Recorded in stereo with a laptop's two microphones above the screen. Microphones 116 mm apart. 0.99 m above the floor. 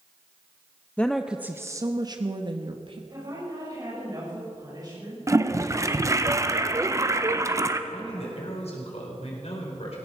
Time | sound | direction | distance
1.0 | a woman speaking | 15° left (ahead or behind) | 0.5 m
3.1 | a woman speaking | 40° right (ahead or behind) | 5 m
5.3 | a toilet flushing | 30° right (ahead or behind) | 0.6 m
7.9 | a man speaking | 70° left (ahead or behind) | 4 m